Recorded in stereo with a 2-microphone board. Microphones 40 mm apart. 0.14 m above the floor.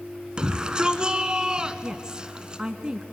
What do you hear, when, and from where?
0.4 s a shout: 25° right (ahead or behind), 1.2 m
1.8 s a woman speaking: 20° right (ahead or behind), 1.1 m